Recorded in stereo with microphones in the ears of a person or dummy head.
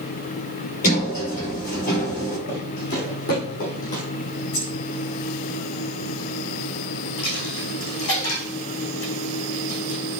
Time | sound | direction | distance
0.8 | a sliding door | 45° left (ahead or behind) | 5 m
2.5 | footsteps | 55° left (ahead or behind) | 3.5 m
4.5 | keys jangling | 55° left (ahead or behind) | 4.5 m
7.2 | a dropped coin | 70° left (ahead or behind) | 5.5 m